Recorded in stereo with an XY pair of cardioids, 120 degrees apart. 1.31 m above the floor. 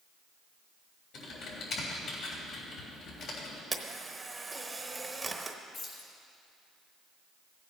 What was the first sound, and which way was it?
Typing on a keyboard, 65° left.